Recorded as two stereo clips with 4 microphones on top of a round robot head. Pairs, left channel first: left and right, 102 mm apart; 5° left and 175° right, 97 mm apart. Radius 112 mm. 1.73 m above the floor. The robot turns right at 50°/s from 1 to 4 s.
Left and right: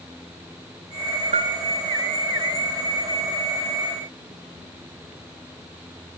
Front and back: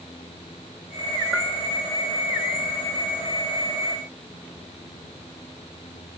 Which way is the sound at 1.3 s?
90° right.